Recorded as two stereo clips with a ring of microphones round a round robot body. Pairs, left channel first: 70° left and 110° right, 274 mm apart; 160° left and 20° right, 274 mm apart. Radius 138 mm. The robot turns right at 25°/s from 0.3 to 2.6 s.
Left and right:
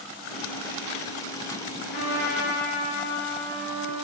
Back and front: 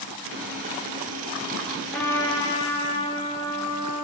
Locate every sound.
1.9 s a trumpet: 70° left, 6.5 m; by 4.0 s 90° left, 6.5 m